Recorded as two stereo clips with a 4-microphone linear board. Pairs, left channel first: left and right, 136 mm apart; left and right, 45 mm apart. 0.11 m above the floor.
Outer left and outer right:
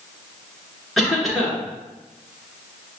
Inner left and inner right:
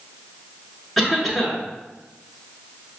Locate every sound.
1.0 s a cough: centre (ahead or behind), 1.2 m